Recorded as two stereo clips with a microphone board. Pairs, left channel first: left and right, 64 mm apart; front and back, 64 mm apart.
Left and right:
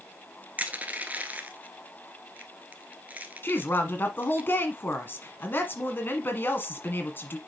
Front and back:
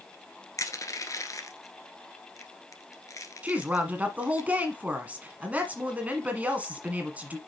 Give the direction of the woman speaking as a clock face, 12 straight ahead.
8 o'clock.